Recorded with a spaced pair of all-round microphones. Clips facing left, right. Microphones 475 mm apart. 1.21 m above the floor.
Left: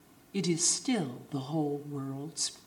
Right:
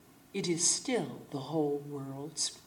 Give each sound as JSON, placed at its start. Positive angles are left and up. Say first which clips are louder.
{"t": 0.3, "sound": "a woman speaking", "louder": "left 2 dB", "side_deg": 30, "distance_m": 0.8}